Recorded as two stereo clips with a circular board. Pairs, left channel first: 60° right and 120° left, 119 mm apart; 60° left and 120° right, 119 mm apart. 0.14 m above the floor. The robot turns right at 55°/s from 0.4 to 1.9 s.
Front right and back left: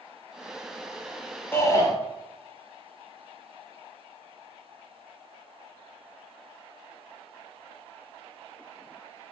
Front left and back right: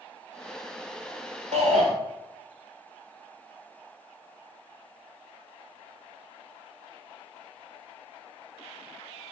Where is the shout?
130° right, 2.5 m; by 1.9 s 110° right, 2.5 m.